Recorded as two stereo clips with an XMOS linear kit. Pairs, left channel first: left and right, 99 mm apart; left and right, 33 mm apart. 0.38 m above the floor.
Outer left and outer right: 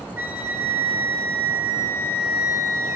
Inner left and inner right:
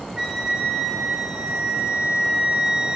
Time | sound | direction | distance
0.2 | a flute | 20° right (ahead or behind) | 3 m